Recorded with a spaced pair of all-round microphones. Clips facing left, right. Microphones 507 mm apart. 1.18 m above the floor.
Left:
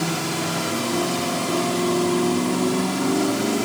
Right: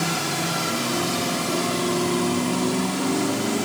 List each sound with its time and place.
Only background noise.